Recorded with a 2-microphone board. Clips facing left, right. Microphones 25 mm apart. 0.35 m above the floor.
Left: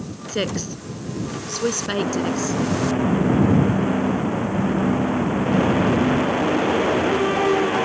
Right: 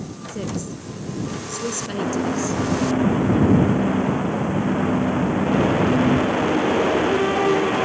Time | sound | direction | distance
0.3 | a woman speaking | 70° left (ahead or behind) | ?